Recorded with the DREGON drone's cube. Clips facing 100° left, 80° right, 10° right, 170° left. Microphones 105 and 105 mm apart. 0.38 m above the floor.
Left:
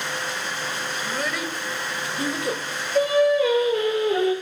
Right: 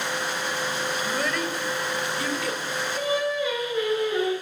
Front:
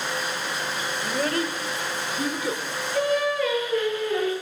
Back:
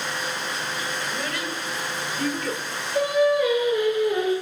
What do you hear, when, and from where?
1.0 s a child speaking: 10° left, 1.3 m; by 2.6 s 75° left, 1.0 m
3.0 s singing: 95° left, 4 m